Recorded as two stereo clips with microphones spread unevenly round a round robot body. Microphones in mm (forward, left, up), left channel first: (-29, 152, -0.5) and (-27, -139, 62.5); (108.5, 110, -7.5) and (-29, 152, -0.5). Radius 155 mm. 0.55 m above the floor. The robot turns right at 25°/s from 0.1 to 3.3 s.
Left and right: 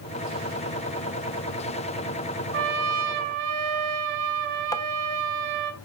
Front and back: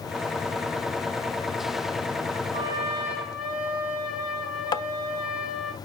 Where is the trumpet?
130° right, 1.1 m; by 5.7 s 110° right, 1.1 m.